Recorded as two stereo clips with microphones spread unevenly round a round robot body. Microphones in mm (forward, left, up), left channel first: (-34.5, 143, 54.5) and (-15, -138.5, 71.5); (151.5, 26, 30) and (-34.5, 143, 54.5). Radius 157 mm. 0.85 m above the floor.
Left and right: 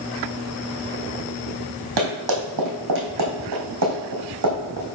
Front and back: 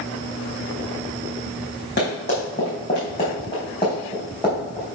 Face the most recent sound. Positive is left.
turn(degrees=-125)